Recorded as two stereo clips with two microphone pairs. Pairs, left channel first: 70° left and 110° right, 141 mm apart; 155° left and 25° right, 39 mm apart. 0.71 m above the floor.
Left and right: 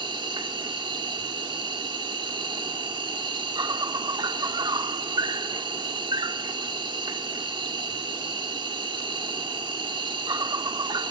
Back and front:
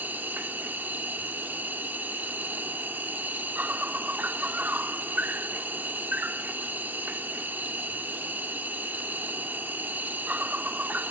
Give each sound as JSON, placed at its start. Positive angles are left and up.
{"t": 0.0, "sound": "an insect", "azimuth_deg": -55, "distance_m": 1.1}